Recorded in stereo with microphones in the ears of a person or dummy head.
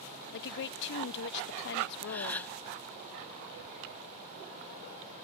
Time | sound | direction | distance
0.3 | a woman speaking | 50° left (ahead or behind) | ?
2.1 | a gasp | 5° left (ahead or behind) | ?